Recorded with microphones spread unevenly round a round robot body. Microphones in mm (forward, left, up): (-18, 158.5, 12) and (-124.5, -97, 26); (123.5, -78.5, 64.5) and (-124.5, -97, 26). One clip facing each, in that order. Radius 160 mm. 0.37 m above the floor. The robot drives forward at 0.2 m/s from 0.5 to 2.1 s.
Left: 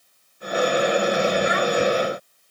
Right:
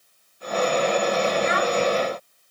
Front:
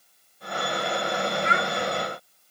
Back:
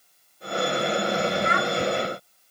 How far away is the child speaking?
About 2 m.